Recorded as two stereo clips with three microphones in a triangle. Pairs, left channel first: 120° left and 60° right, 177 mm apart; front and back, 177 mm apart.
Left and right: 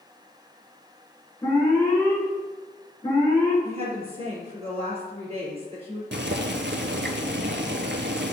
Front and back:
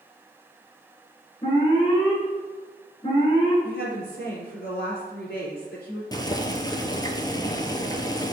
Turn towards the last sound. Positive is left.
turn(degrees=-65)